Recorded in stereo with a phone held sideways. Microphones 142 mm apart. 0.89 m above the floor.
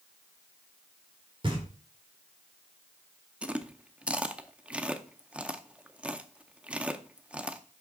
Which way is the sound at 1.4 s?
35° right (ahead or behind).